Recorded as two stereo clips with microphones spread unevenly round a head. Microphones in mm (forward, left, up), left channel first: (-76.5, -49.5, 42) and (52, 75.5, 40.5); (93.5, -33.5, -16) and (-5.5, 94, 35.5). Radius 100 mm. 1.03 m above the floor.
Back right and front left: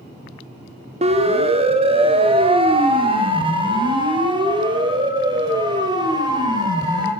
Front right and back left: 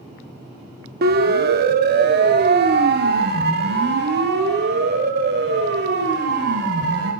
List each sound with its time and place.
1.0 s a siren: 100° left, 2.5 m; by 7.1 s 110° left, 6.5 m